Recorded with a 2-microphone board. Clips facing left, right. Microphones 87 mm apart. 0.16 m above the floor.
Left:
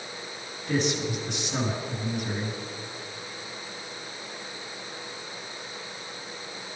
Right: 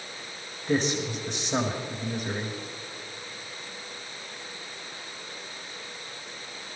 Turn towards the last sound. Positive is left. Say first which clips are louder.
# right 1 dB
turn(degrees=-35)  # may be behind; listen again after turning